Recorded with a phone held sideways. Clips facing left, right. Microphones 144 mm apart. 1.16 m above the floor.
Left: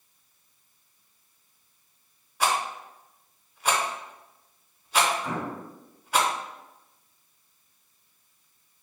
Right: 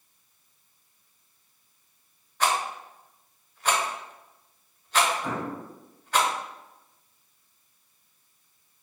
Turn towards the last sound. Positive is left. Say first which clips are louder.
# even
turn(degrees=-65)  # may be behind; listen again after turning